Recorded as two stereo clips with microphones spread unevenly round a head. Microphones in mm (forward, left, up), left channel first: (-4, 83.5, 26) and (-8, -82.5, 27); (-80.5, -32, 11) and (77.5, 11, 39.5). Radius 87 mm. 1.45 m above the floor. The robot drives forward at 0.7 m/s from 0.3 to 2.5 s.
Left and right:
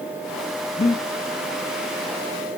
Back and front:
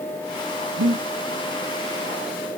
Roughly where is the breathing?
Ahead left.